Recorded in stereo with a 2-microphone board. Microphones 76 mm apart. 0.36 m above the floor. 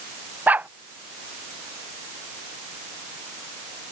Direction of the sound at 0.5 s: 20° right (ahead or behind).